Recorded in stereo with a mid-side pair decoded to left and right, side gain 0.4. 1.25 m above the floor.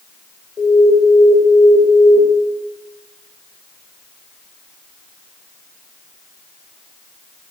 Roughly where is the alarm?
Ahead left.